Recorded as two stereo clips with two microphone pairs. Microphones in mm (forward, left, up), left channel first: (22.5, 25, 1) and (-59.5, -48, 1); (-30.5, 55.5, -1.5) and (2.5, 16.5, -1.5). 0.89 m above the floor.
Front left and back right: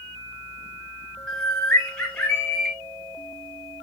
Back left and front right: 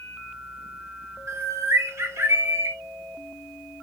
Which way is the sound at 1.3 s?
40° right.